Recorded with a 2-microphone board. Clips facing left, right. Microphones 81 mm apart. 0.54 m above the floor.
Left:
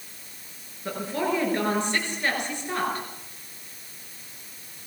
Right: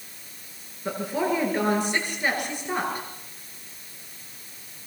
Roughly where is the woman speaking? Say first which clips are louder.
Right 1 dB; centre.